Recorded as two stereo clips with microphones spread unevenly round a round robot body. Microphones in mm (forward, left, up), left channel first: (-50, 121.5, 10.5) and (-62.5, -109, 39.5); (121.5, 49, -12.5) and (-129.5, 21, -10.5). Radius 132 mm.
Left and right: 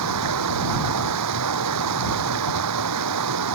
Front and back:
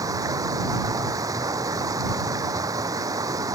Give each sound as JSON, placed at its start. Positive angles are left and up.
{"t": 0.0, "sound": "running water", "azimuth_deg": -95}